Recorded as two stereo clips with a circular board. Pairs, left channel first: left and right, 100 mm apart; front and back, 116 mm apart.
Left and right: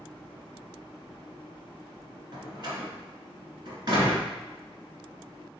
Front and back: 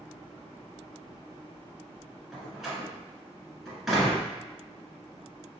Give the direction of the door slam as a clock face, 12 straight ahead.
3 o'clock.